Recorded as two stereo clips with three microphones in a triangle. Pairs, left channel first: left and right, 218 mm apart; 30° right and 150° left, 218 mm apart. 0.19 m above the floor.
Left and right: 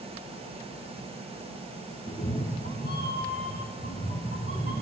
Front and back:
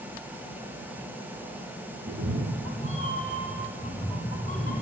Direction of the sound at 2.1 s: 160° left.